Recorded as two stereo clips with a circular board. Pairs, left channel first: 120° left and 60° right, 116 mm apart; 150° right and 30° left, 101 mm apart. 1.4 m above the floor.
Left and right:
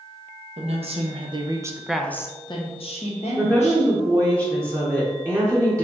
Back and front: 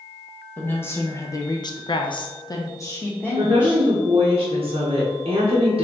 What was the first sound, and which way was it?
A woman speaking, 80° right.